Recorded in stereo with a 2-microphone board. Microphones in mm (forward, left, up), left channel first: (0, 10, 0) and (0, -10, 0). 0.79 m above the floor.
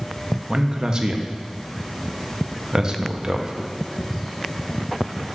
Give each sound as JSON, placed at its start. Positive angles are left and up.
{"t": 0.5, "sound": "a man speaking", "side_deg": -30, "distance_m": 0.6}